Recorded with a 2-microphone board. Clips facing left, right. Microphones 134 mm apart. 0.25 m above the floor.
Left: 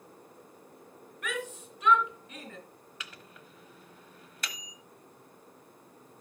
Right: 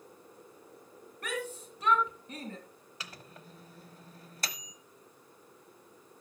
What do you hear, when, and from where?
1.2 s a shout: 35° right (ahead or behind), 2.5 m
3.0 s a microwave: 35° right (ahead or behind), 0.9 m